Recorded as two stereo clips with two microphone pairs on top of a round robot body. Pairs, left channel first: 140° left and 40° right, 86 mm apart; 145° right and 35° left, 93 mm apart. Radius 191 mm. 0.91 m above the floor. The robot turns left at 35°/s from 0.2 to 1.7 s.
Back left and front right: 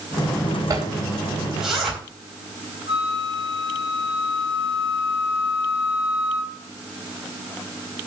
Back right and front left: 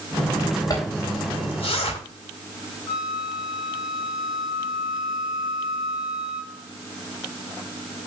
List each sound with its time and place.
0.7 s a zipper: 90° right, 4 m; by 2.0 s 125° right, 4 m
2.9 s a flute: 120° left, 3.5 m